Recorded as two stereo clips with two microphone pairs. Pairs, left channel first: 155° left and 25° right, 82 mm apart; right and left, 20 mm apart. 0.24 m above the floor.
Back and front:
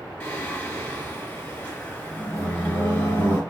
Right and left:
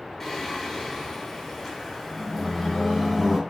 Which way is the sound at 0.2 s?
155° right.